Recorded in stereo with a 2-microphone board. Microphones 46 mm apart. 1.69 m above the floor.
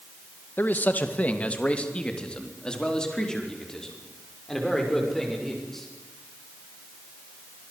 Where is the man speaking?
45° left (ahead or behind), 2 m; by 5.9 s 10° left (ahead or behind), 7 m.